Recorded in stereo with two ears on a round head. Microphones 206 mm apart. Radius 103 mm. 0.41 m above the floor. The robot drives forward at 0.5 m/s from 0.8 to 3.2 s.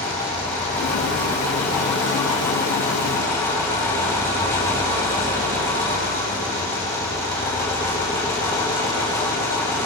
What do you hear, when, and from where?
0.0 s an engine running: 10° left (ahead or behind), 6.5 m